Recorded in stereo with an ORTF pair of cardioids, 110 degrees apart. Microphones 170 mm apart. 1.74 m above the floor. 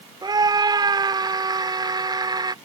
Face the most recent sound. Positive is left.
turn(degrees=-25)